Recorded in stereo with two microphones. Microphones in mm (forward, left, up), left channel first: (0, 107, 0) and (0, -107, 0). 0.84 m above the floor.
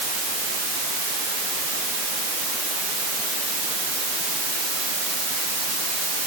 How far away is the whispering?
No whispering in this recording.